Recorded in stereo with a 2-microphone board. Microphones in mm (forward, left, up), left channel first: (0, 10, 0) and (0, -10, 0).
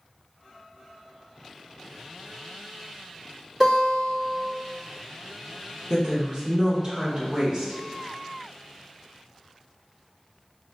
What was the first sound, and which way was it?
A guitar, 20° right (ahead or behind).